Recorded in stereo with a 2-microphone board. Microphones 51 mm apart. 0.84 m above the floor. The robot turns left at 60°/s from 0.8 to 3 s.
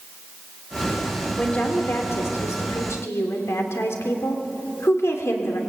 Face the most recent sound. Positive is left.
turn(degrees=70)